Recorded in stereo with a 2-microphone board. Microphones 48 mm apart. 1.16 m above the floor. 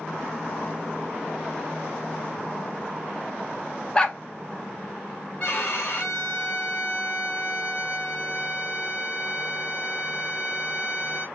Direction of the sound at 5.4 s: 45° left (ahead or behind).